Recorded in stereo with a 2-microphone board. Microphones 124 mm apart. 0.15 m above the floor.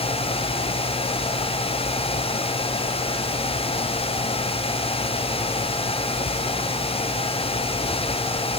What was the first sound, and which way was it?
Only background noise.